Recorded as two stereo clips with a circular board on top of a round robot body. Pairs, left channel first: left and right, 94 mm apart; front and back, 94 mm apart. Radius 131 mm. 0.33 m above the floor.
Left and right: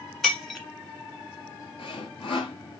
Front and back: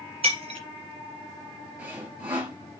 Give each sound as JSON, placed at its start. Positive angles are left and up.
{"t": 0.2, "sound": "breaking glass", "azimuth_deg": 175, "distance_m": 1.4}
{"t": 1.8, "sound": "sawing", "azimuth_deg": 110, "distance_m": 3.0}